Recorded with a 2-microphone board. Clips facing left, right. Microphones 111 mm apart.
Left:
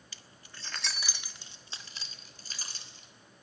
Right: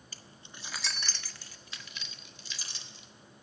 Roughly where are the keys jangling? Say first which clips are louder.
Right 2 dB; right.